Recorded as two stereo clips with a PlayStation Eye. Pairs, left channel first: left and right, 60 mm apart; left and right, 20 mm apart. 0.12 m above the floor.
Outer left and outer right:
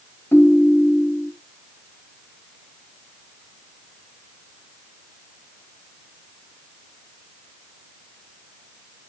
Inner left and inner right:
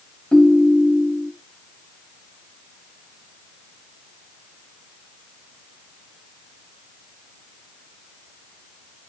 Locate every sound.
0.3 s a ringtone: 40° left (ahead or behind), 1.1 m